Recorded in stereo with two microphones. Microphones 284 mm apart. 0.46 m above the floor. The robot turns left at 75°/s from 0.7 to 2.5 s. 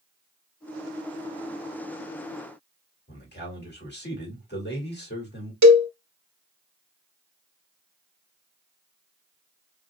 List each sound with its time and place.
3.1 s a man speaking: 35° left (ahead or behind), 1.8 m
5.6 s a cowbell: 80° right, 0.8 m